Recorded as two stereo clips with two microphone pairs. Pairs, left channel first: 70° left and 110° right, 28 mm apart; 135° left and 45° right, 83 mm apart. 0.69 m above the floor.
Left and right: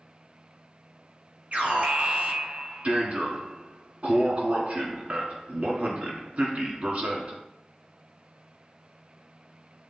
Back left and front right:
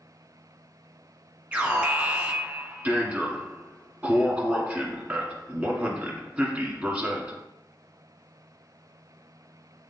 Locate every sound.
1.5 s an alarm: 110° right, 1.6 m